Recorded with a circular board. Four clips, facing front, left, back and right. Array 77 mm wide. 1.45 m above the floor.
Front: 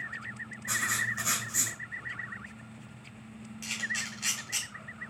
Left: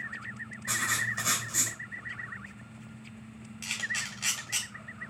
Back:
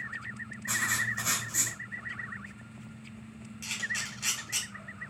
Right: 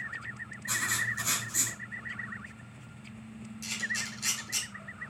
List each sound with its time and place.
0.7 s writing: 105° left, 2.5 m
3.6 s a camera shutter: 100° left, 2 m